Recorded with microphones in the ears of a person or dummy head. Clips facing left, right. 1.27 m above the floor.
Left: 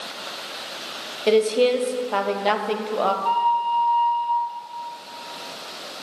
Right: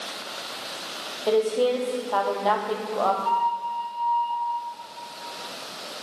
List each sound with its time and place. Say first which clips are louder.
1.3 s a woman speaking: left 4 dB; 30° left (ahead or behind), 0.9 m
3.2 s a flute: left 4 dB; 55° left (ahead or behind), 4 m